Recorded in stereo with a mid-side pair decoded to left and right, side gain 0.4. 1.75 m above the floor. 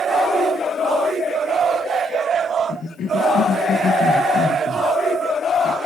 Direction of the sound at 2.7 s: 65° left.